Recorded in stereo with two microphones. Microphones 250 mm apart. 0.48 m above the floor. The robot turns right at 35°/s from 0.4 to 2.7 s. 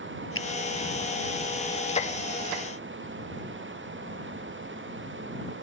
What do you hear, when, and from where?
0.3 s a finger snap: 55° left (ahead or behind); by 0.5 s 60° left (ahead or behind)